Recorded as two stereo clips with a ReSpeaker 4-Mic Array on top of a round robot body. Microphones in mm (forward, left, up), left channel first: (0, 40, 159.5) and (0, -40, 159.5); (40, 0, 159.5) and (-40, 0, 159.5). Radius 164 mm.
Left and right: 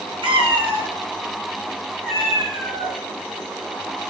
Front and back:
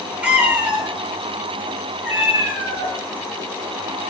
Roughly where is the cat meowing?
Right.